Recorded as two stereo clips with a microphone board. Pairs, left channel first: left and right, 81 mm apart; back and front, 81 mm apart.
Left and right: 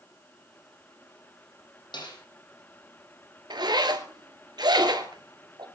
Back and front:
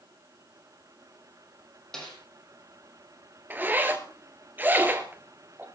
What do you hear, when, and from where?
1.9 s a snare drum: 100° left, 7.5 m
3.5 s a zipper: 65° right, 2.0 m